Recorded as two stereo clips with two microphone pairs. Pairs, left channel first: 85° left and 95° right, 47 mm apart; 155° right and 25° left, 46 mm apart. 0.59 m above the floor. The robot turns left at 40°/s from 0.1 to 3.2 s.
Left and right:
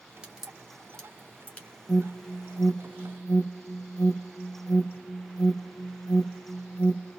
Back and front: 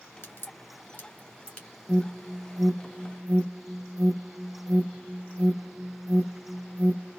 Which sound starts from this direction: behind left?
An alarm, at 1.9 s.